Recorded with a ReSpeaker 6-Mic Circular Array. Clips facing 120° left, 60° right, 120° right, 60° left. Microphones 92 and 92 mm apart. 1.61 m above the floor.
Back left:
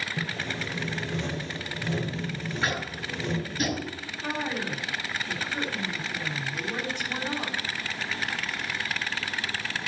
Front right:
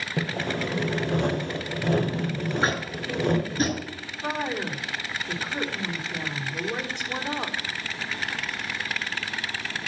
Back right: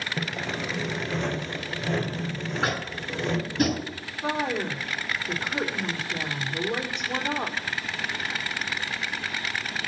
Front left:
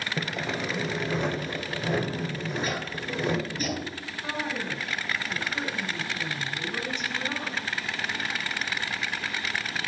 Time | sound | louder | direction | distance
0.2 | sawing | front right 9 dB, front left 1 dB | 20° right | 0.5 m
2.6 | tapping | front right 4 dB, back right 2 dB | 115° right | 4 m
4.2 | a woman speaking | front right 2 dB, back right 5 dB | 130° right | 3.5 m